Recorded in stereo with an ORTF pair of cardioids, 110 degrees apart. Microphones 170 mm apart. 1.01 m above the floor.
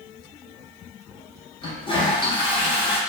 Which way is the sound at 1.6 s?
30° left.